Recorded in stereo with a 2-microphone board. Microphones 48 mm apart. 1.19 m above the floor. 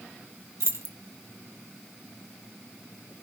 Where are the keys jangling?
70° right (ahead or behind), 1.4 m.